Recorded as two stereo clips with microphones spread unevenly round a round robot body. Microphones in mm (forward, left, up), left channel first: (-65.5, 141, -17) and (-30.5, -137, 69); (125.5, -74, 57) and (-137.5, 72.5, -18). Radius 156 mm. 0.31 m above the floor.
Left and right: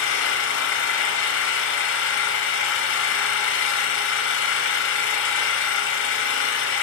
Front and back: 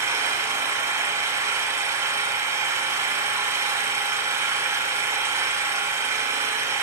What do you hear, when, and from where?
0.0 s an engine running: 80° left, 0.7 m